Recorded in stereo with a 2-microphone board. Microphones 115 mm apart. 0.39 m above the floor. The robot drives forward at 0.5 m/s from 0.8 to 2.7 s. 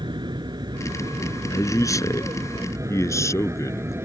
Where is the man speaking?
30° left (ahead or behind); by 4.0 s 25° left (ahead or behind).